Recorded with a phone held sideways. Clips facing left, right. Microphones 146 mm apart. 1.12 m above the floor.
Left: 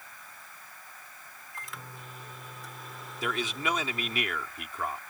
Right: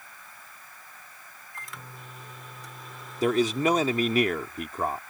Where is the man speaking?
40° right (ahead or behind).